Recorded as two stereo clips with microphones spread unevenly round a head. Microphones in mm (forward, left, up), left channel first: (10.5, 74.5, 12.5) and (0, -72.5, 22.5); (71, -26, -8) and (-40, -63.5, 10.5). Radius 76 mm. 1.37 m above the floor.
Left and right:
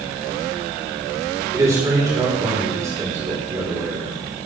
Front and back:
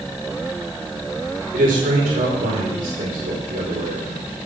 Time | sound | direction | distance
1.5 | a man speaking | 165° right | 5 m